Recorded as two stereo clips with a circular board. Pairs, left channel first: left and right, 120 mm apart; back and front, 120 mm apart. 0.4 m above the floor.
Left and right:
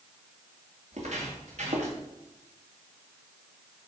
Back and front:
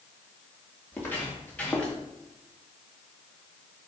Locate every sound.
0.9 s footsteps: 105° right, 3.5 m; by 2.0 s 100° right, 2.5 m